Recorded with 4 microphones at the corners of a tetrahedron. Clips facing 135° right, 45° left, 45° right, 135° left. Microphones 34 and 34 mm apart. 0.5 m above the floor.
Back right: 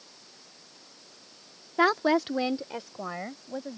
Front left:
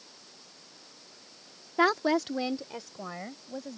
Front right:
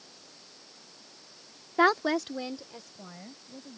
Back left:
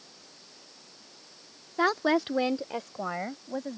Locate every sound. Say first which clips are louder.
1.8 s a woman speaking: back right 2 dB, front right 1 dB; 55° right; by 3.8 s 150° left